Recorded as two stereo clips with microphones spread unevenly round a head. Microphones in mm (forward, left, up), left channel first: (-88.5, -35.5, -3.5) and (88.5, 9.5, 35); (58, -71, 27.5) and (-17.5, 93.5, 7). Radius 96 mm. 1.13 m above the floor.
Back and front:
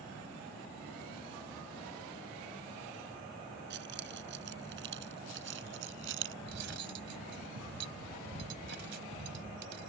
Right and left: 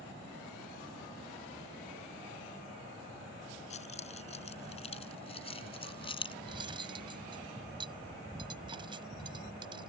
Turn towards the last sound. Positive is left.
turn(degrees=50)